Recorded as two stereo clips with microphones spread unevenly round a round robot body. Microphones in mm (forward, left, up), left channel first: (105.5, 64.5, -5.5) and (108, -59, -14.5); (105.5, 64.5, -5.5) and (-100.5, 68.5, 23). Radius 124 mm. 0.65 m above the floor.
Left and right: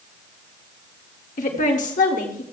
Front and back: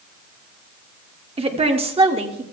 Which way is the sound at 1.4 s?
115° left.